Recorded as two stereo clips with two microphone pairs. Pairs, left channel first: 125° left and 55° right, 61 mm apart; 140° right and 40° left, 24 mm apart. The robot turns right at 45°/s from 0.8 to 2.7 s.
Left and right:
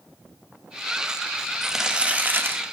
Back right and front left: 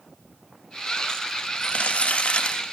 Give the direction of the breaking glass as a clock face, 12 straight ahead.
No breaking glass in this recording.